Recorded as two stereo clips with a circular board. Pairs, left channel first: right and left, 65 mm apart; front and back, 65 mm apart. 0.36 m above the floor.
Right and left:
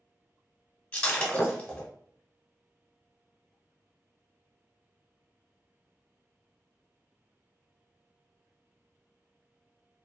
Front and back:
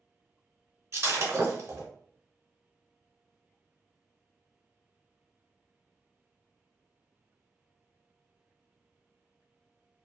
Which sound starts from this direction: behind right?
Breaking glass, at 0.9 s.